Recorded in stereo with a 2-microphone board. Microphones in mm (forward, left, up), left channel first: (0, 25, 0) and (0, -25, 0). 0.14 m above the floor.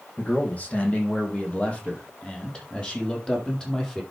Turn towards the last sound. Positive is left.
turn(degrees=15)  # may be behind; listen again after turning